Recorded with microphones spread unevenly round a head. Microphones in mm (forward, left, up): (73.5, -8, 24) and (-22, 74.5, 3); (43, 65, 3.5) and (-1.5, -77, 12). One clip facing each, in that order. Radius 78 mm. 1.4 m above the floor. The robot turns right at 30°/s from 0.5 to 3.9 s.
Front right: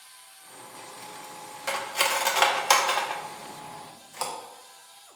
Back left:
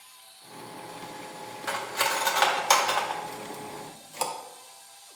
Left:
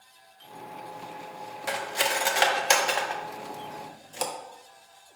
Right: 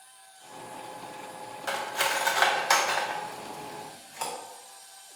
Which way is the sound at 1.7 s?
Straight ahead.